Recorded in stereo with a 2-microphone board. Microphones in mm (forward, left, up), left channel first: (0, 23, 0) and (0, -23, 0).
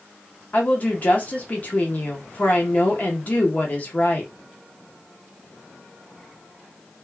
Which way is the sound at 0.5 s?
35° left (ahead or behind).